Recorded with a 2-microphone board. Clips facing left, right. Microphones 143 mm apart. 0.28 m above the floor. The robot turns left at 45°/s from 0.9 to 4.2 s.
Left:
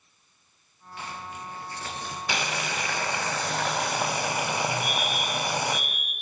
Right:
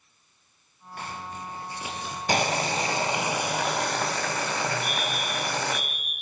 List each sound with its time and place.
1.0 s a zipper: 50° right (ahead or behind), 6 m; by 2.2 s 5° left (ahead or behind), 6 m
2.3 s boiling: 115° right, 2 m; by 5.8 s 160° left, 2 m
4.8 s a fire alarm: 70° left (ahead or behind), 8.5 m